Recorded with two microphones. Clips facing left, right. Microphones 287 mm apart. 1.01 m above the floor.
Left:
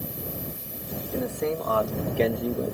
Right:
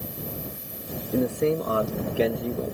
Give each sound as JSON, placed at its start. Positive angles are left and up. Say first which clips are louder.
{"t": 1.1, "sound": "a man speaking", "louder": "right 5 dB", "side_deg": -45}